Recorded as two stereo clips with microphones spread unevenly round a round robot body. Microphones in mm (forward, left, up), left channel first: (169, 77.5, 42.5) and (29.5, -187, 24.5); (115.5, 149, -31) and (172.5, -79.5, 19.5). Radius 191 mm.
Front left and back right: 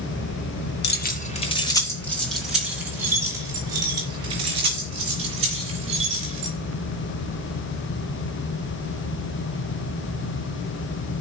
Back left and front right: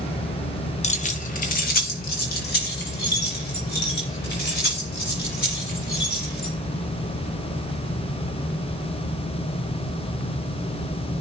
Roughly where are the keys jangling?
Left.